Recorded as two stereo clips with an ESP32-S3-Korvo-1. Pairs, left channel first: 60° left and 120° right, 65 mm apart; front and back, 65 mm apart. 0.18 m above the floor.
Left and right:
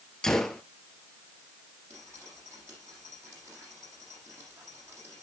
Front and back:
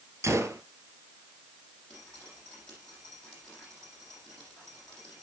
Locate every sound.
0.2 s a gunshot: 140° left, 1.3 m
1.9 s dripping: 75° right, 7.5 m